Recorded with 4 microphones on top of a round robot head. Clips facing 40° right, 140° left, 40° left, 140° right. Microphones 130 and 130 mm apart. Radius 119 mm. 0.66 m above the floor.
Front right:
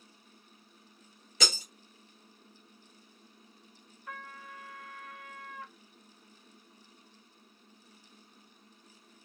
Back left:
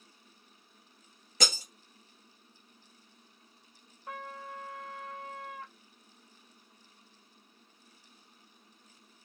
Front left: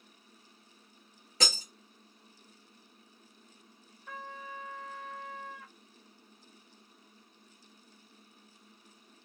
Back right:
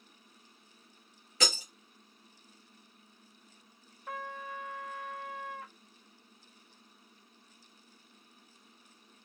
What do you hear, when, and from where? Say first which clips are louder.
1.4 s breaking glass: back left 1 dB, back right 2 dB; 95° left, 1.6 m
4.1 s a trumpet: back left 4 dB, back right 3 dB; 165° right, 0.6 m